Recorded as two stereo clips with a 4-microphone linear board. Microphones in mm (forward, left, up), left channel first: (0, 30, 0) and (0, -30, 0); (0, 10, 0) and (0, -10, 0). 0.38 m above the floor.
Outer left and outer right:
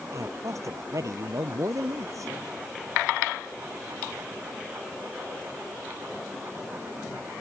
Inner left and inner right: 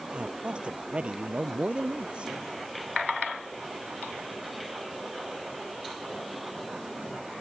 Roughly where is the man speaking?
Right.